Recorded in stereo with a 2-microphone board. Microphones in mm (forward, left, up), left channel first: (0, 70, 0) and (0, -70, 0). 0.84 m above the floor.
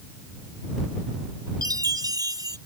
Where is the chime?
25° right (ahead or behind).